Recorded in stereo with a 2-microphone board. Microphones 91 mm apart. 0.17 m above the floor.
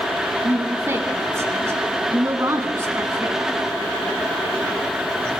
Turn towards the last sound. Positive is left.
turn(degrees=-30)  # may be behind; listen again after turning